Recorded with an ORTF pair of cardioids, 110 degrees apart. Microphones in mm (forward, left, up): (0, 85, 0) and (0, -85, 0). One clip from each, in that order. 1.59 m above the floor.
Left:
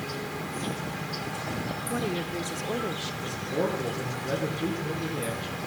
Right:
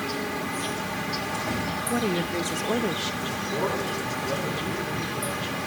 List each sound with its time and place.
0.0 s an insect: 20° right, 0.8 m
1.9 s a woman speaking: 15° right, 0.6 m
3.2 s a man speaking: 60° left, 3 m